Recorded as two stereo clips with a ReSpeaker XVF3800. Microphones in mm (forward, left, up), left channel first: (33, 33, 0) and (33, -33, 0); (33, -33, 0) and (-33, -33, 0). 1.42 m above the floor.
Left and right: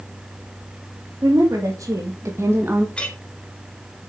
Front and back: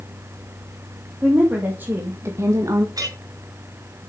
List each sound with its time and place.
1.2 s a woman speaking: 110° right, 3 m; by 2.9 s 155° right, 1.5 m
3.0 s a clink: 165° left, 2.5 m